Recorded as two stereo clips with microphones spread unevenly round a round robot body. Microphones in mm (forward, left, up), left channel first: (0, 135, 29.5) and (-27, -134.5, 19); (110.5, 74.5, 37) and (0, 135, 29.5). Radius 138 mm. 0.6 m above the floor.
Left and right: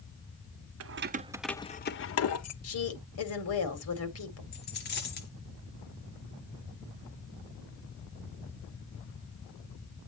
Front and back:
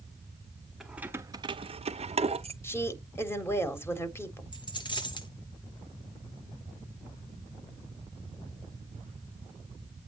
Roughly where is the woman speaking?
Ahead left.